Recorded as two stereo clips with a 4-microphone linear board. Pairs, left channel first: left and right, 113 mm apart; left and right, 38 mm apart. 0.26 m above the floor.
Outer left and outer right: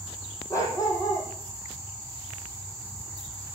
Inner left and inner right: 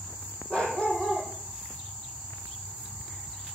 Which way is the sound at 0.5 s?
30° left (ahead or behind).